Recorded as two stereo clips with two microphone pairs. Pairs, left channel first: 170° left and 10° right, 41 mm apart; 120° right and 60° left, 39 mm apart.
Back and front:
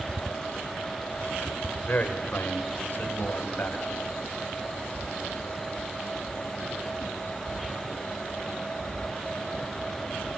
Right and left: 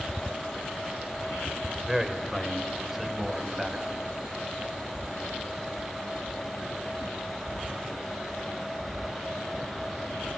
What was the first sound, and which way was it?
A man speaking, 145° left.